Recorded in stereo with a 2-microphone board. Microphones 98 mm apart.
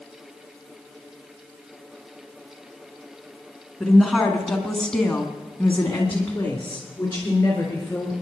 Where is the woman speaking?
Centre (ahead or behind), 2 m; by 8.1 s 15° left (ahead or behind), 3.5 m.